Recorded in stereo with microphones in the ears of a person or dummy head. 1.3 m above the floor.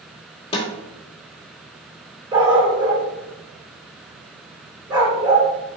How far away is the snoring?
I don't hear snoring.